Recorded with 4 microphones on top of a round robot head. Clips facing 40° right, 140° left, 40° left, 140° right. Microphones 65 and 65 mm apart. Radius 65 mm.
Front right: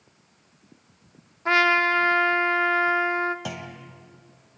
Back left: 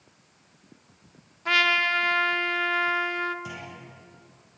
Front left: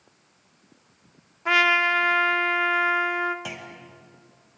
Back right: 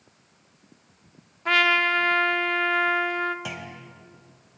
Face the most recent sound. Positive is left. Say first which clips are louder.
# front right 3 dB, back right 1 dB
turn(degrees=-50)